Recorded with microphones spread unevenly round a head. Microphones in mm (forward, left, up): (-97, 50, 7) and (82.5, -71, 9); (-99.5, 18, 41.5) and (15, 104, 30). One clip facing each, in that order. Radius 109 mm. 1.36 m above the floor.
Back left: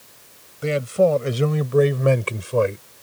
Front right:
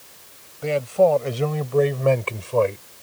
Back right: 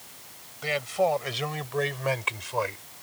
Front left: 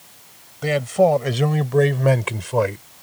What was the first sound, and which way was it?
A man speaking, 80° left.